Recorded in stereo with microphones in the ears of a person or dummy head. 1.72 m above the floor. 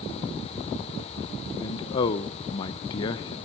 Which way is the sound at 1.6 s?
30° left (ahead or behind).